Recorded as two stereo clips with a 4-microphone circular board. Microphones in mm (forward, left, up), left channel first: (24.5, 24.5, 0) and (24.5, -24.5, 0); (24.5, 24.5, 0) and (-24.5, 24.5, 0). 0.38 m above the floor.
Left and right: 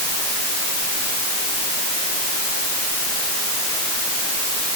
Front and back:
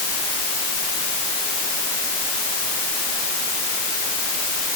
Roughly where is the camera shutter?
No camera shutter in this recording.